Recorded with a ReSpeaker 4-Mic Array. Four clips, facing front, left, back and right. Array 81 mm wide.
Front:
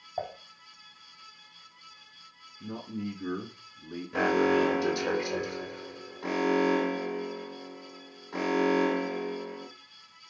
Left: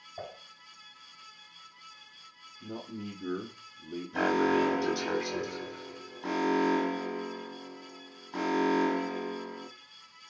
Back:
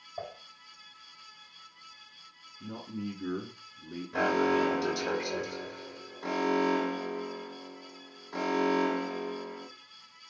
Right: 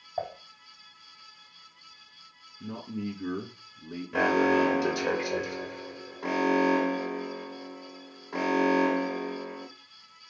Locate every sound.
0.2 s dishes clattering: 55° right, 3.5 m
2.6 s a man speaking: 90° right, 6.5 m
4.1 s an alarm: 70° right, 5 m